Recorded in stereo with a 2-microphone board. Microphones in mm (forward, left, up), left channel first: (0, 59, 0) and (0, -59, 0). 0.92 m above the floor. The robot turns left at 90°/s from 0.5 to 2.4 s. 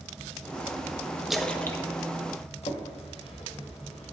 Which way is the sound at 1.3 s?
5° right (ahead or behind).